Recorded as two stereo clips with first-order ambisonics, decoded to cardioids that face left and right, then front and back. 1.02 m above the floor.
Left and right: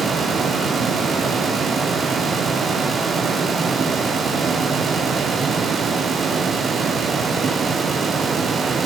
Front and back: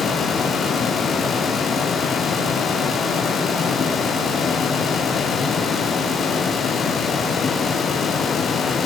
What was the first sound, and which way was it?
Only background noise.